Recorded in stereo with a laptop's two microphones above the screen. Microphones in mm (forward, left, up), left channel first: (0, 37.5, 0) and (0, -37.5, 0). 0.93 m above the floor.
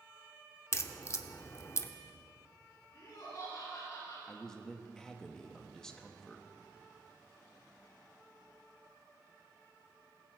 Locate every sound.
0.7 s a crack: 40° left (ahead or behind), 0.8 m
2.9 s laughter: 55° left (ahead or behind), 4 m
4.3 s a man speaking: 10° left (ahead or behind), 0.9 m